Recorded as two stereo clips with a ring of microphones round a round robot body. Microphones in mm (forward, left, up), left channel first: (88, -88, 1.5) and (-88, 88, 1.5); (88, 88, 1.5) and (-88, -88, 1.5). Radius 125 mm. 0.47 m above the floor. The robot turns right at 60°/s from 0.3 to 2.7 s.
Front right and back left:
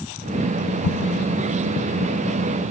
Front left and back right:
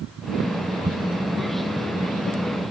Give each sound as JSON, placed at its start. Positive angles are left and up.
{"t": 0.8, "sound": "an explosion", "azimuth_deg": -70, "distance_m": 0.5}